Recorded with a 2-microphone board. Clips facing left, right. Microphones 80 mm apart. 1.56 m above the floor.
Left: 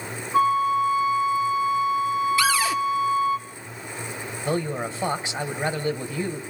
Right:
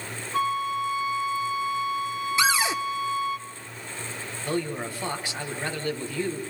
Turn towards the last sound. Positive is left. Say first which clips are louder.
# left 3 dB
turn(degrees=20)  # may be behind; listen again after turning